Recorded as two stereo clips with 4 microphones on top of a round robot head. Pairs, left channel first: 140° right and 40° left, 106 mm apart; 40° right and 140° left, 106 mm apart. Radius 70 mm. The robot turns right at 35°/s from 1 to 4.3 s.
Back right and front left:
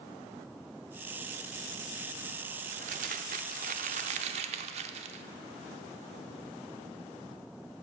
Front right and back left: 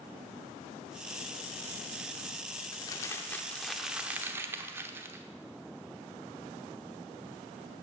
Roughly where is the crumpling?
Ahead.